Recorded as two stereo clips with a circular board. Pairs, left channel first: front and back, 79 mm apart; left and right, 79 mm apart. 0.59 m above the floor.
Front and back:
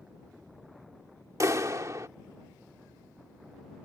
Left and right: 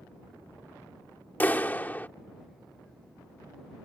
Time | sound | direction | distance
1.4 | a clap | 150° left | ?